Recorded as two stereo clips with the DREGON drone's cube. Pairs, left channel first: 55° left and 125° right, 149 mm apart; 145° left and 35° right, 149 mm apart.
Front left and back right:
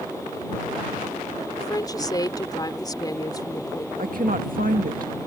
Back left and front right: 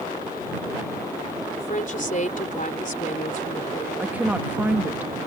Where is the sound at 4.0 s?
115° right.